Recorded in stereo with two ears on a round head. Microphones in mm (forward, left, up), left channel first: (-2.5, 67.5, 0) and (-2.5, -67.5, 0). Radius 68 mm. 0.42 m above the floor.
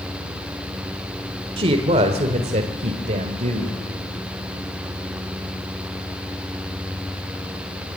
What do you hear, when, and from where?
1.6 s a woman speaking: 35° right (ahead or behind), 1.7 m; by 3.7 s 45° right (ahead or behind), 2.5 m